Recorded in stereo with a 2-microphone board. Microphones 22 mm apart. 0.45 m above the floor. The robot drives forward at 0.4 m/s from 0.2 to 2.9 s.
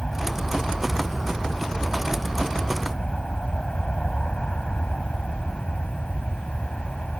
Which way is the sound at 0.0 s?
45° left (ahead or behind).